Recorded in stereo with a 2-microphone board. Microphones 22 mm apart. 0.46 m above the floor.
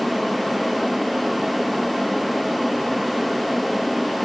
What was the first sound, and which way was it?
Only background noise.